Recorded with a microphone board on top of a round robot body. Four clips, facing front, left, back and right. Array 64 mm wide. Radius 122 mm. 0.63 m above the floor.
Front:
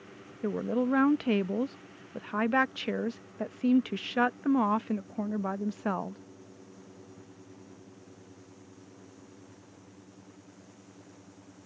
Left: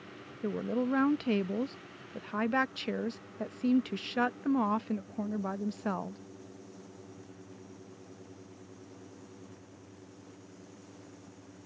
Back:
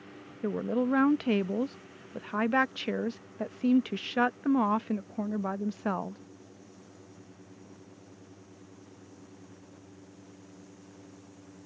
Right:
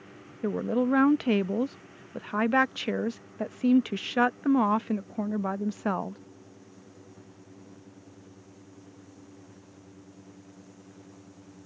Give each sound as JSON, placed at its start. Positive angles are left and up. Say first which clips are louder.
{"t": 0.4, "sound": "a woman speaking", "louder": "right 5 dB, even", "azimuth_deg": -85}